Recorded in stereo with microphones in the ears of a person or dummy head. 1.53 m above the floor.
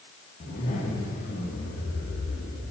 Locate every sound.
0.4 s a zipper: 50° left (ahead or behind), 2 m